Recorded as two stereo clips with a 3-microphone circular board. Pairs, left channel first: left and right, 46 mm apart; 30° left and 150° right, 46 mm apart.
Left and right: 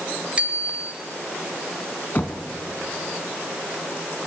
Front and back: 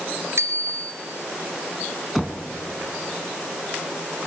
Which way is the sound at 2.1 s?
120° left.